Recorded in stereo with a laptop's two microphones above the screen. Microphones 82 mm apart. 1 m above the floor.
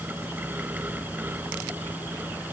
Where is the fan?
20° right (ahead or behind).